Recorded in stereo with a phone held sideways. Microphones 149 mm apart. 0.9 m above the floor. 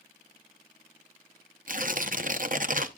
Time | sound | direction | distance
1.7 | tearing paper | 60° right (ahead or behind) | 0.7 m